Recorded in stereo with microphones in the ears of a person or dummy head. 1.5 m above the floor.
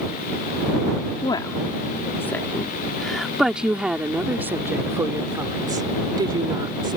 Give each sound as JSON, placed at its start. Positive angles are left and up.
{"t": 1.2, "sound": "a woman speaking", "side_deg": 30}